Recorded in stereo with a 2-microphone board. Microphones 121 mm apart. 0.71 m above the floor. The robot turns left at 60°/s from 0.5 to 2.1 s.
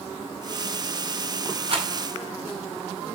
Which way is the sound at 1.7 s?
45° right (ahead or behind).